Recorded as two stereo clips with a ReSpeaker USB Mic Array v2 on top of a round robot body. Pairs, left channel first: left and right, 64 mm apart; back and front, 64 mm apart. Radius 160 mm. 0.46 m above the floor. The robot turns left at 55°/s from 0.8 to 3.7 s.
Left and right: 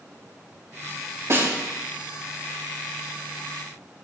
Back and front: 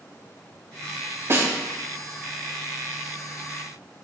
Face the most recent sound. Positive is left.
turn(degrees=180)